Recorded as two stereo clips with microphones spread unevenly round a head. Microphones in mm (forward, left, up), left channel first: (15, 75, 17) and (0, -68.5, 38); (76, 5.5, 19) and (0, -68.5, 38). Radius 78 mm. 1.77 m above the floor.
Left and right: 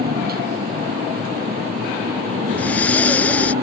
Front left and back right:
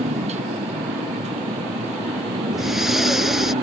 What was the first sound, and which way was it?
A motorcycle, 125° right.